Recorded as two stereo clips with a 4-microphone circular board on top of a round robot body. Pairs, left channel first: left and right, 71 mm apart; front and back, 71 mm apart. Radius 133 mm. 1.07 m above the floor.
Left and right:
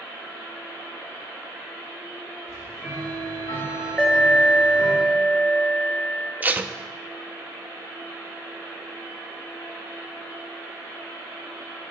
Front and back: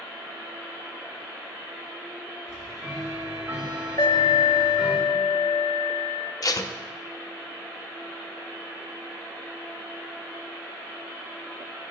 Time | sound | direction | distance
2.5 | ticking | 135° left | 5 m
4.0 | an alarm | 5° left | 2.5 m
6.4 | tape being pulled | 25° right | 0.7 m